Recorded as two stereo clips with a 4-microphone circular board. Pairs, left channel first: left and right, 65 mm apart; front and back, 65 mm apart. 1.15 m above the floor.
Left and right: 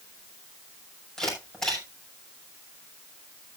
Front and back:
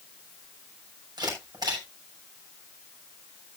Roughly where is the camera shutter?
Behind.